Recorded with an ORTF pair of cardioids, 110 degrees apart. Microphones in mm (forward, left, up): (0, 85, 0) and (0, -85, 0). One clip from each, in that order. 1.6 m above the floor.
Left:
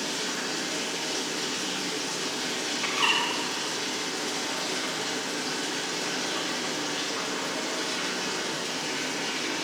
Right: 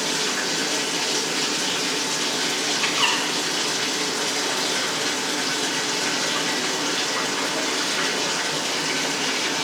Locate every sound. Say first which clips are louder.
0.0 s running water: right 7 dB; 45° right, 0.9 m
2.8 s a bird: right 3 dB; 25° right, 3 m